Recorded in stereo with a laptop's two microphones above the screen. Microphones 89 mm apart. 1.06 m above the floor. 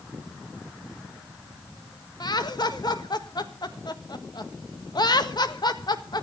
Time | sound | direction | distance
2.2 | laughter | 55° left (ahead or behind) | 1.6 m